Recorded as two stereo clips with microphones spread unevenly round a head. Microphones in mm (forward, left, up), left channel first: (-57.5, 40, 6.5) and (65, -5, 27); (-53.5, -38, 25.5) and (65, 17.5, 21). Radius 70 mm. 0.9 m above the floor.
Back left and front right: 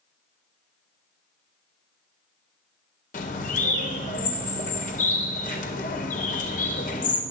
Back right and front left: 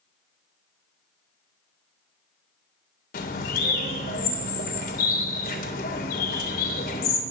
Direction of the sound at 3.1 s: 170° right.